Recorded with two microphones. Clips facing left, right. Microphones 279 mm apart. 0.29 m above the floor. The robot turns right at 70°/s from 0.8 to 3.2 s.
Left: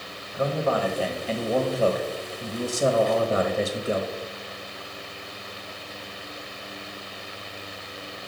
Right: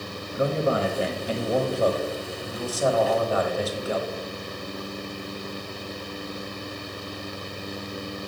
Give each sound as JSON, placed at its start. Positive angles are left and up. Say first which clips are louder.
{"t": 0.3, "sound": "a man speaking", "louder": "right 1 dB", "azimuth_deg": -65, "distance_m": 1.0}